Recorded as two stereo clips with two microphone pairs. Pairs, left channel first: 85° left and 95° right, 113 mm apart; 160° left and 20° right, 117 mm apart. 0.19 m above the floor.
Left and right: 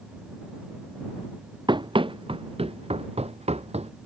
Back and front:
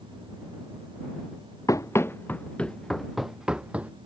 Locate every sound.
1.7 s running footsteps: 140° right; by 3.9 s 95° right